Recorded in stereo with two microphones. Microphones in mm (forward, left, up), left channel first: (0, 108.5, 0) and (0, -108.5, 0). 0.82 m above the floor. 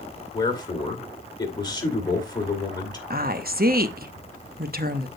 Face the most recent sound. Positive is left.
turn(degrees=-45)  # may be behind; listen again after turning